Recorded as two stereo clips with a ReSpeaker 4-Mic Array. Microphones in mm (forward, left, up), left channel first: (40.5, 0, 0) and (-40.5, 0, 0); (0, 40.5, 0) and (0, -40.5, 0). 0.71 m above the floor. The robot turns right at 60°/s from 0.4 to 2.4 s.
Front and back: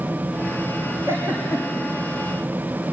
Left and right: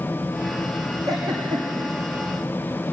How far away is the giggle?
About 6 m.